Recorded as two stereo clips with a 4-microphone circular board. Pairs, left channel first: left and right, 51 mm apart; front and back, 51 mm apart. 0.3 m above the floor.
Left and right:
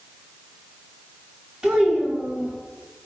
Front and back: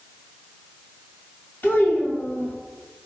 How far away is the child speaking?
About 1.3 m.